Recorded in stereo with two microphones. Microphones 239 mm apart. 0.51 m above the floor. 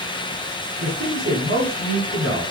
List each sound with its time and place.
0.8 s a man speaking: 60° right (ahead or behind), 4.5 m